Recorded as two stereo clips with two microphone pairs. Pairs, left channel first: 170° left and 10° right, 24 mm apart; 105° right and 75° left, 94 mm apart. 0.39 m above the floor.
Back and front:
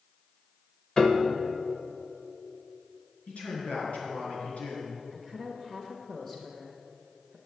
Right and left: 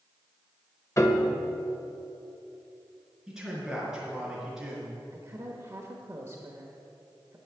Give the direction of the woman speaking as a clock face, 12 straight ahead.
8 o'clock.